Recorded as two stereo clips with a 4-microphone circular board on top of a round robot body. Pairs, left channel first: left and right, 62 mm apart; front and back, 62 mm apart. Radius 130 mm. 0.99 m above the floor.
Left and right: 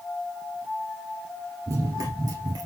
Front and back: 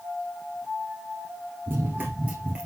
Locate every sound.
1.7 s running footsteps: 130° right, 1.3 m; by 2.7 s 105° right, 1.9 m